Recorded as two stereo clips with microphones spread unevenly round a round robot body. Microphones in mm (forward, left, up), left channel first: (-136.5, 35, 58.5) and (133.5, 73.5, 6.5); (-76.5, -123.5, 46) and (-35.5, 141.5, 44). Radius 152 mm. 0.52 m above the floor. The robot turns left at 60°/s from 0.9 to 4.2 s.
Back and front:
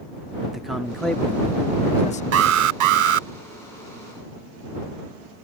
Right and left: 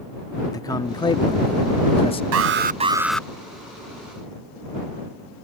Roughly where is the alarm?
Ahead left.